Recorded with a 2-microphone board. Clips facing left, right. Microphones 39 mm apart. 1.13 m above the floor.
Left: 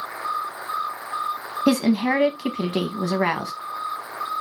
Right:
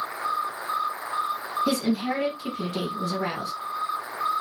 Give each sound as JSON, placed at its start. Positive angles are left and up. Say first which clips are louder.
{"t": 1.7, "sound": "a woman speaking", "louder": "left 8 dB", "side_deg": 75, "distance_m": 1.0}